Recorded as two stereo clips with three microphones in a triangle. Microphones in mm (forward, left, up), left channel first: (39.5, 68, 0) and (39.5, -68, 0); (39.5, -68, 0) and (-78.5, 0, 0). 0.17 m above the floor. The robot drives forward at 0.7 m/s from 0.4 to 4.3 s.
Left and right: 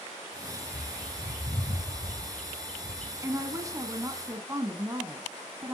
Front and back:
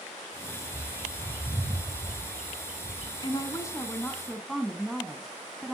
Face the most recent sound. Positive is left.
turn(degrees=-120)